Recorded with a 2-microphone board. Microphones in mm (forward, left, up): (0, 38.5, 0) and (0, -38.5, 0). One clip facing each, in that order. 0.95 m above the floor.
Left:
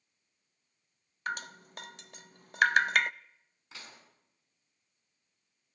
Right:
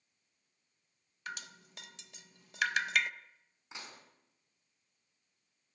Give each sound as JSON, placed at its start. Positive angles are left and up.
{"t": 1.3, "sound": "dripping", "side_deg": 45, "distance_m": 0.6}
{"t": 3.7, "sound": "dishes clattering", "side_deg": -20, "distance_m": 6.0}